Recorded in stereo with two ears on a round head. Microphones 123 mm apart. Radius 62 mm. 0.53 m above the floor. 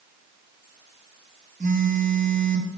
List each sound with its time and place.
1.6 s a phone buzzing: 60° right (ahead or behind), 2 m